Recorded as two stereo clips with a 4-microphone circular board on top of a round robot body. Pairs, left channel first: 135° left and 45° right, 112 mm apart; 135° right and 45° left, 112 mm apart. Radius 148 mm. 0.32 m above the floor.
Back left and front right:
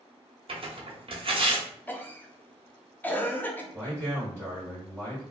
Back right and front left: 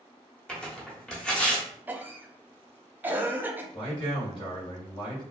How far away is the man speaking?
About 1.9 m.